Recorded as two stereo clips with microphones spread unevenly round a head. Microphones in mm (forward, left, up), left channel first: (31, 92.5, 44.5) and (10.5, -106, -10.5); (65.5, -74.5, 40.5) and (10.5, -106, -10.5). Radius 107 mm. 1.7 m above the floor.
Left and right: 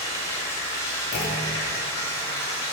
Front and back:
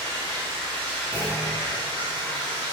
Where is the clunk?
70° left, 0.9 m.